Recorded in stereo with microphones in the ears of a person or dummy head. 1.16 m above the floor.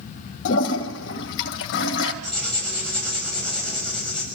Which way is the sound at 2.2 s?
5° left (ahead or behind).